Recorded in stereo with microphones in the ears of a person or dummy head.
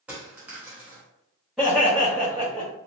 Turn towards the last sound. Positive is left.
turn(degrees=-5)  # may be behind; listen again after turning